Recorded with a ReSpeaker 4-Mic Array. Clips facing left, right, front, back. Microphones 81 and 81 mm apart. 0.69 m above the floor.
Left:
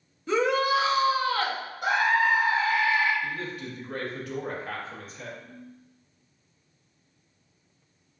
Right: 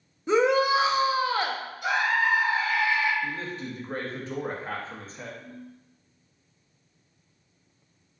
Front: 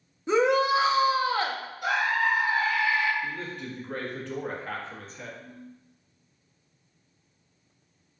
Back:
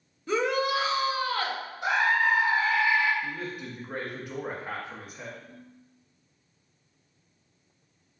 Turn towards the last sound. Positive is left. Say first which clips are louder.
# right 2 dB, front 3 dB
turn(degrees=-70)